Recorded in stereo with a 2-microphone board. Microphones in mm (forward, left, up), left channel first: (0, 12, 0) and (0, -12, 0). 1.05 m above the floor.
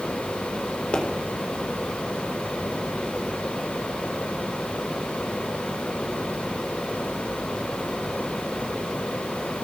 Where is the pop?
45° left (ahead or behind), 3.5 m.